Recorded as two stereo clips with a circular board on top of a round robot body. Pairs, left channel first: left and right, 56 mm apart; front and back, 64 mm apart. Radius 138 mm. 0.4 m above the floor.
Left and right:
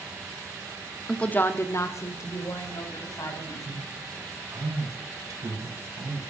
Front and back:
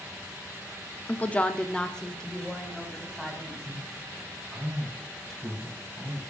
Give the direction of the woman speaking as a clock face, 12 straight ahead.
11 o'clock.